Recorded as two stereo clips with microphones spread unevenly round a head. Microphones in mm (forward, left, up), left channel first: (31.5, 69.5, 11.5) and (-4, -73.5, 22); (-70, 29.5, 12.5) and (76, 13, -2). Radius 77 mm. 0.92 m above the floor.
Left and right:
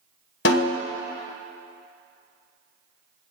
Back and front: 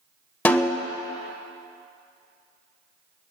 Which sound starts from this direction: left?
A snare drum, at 0.5 s.